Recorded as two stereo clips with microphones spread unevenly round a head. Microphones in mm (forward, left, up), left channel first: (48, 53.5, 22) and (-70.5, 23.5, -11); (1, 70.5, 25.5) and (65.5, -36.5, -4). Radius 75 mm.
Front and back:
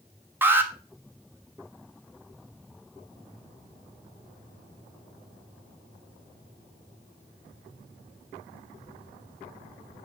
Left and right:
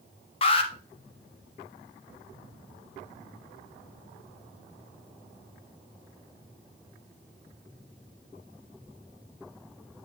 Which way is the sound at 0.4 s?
115° left.